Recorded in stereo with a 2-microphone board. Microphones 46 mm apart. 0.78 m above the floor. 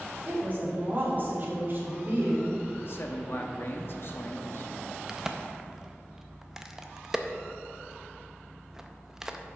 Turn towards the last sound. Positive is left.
turn(degrees=-10)  # may be behind; listen again after turning